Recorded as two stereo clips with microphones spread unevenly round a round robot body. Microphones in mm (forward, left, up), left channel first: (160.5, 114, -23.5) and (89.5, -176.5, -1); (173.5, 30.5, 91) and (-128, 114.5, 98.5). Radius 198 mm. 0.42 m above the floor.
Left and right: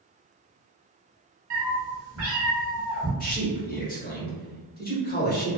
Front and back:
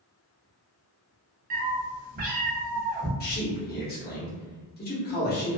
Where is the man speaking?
35° left, 1.2 m.